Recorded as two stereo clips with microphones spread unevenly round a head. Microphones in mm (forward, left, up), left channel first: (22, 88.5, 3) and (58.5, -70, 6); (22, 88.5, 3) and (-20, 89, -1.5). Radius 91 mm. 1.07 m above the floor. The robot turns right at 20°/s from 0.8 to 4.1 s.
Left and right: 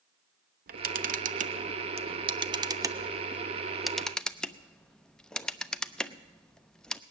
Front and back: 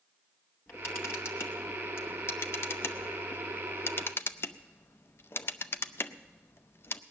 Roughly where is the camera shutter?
Ahead right.